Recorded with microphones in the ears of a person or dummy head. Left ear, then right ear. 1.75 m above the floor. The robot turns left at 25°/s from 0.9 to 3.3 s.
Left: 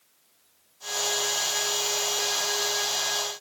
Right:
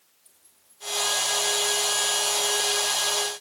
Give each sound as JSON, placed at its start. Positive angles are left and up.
{"t": 0.2, "sound": "keys jangling", "side_deg": -5, "distance_m": 2.5}